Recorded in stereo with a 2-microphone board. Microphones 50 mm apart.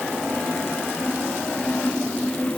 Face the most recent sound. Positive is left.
No sound to turn to.